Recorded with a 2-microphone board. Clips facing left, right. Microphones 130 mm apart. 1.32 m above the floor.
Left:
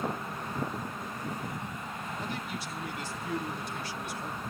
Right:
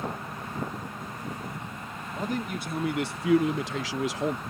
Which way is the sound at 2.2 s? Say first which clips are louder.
Right 10 dB; 40° right (ahead or behind).